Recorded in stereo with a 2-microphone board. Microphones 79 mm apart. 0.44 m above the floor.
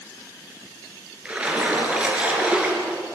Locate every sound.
1.2 s a splash: 15° right (ahead or behind), 4 m